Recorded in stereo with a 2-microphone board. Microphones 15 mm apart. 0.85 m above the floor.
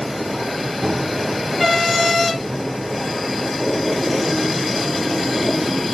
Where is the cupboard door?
70° right (ahead or behind), 2 m.